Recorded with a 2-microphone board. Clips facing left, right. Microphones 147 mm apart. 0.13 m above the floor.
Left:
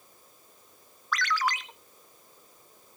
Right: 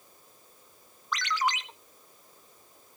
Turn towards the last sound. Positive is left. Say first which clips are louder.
# left 1 dB
turn(degrees=-20)  # may be behind; listen again after turning